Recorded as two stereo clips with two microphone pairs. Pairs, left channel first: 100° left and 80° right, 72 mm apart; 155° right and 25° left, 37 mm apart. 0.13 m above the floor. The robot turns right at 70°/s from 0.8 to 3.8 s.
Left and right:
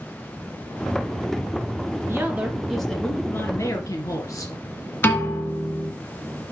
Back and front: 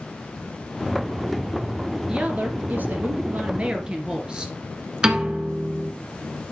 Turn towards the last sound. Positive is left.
turn(degrees=70)